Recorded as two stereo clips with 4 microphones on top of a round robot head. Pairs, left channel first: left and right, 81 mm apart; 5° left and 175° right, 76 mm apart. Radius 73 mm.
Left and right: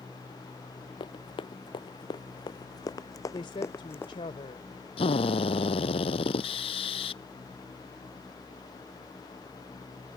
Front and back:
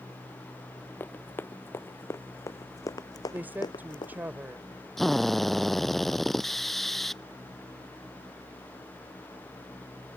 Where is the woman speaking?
120° left.